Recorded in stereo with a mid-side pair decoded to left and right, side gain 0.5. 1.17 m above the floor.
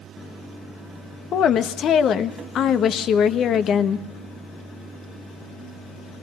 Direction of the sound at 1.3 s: 60° left.